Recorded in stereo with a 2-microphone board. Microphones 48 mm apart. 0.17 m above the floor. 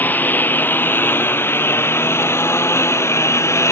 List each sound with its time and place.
0.0 s a lawn mower: 40° left (ahead or behind); by 3.7 s 75° left (ahead or behind)